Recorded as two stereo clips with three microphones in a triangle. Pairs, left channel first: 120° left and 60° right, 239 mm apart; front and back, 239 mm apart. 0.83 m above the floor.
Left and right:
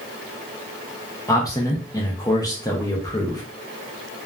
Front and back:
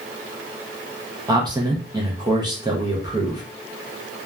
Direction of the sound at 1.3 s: 160° left.